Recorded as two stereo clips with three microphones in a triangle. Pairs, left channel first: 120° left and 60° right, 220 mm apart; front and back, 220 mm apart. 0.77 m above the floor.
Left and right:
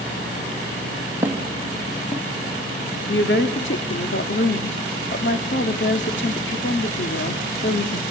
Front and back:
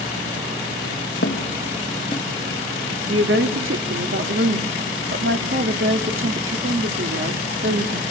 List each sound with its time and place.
1.2 s footsteps: 20° left, 2.0 m; by 2.2 s 70° left, 1.1 m
3.1 s a woman speaking: 155° left, 1.5 m